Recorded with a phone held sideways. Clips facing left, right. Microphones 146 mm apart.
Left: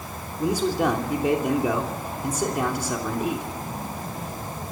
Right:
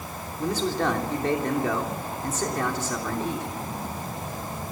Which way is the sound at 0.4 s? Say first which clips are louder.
Left 3 dB; 15° left (ahead or behind).